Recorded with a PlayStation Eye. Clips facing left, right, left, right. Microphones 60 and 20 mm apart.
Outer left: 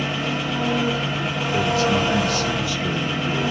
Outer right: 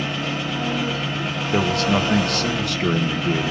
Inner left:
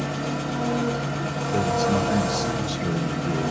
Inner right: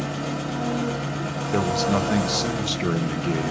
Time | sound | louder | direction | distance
0.0 | an engine running | outer left 1 dB, inner left 1 dB | centre (ahead or behind) | 0.8 m
1.5 | a man speaking | even, even | 60° right (ahead or behind) | 0.6 m